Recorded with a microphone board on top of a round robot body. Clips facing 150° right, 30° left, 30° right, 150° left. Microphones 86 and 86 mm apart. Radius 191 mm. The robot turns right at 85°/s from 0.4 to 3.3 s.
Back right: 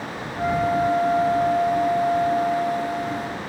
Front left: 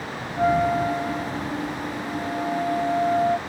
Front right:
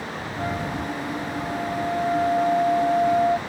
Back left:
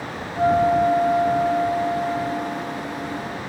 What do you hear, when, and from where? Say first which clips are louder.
0.4 s a flute: front left 1 dB, back left 13 dB; 100° left; by 3.4 s 15° right